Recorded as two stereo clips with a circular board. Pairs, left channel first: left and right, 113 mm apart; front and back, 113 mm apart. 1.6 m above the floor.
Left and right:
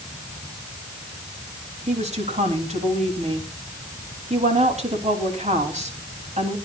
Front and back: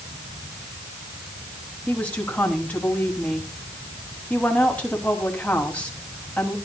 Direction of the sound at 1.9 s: 80° right.